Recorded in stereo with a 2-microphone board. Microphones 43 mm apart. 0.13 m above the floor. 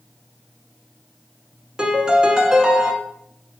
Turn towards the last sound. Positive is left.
turn(degrees=-20)  # may be behind; listen again after turning